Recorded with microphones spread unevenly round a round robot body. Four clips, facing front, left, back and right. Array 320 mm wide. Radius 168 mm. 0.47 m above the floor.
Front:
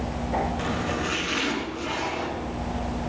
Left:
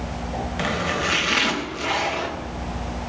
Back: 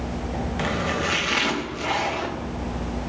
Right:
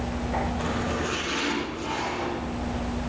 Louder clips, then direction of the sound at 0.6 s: Left 3 dB, back 2 dB; 115° left.